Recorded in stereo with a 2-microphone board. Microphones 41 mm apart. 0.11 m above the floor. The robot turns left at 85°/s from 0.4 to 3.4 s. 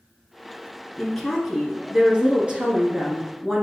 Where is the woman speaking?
15° left (ahead or behind), 1.3 m; by 3.6 s 5° right (ahead or behind), 1.3 m.